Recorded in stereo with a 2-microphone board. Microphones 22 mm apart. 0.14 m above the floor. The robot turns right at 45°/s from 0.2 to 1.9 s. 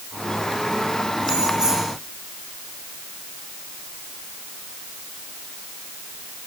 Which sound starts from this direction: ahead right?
Keys jangling, at 1.2 s.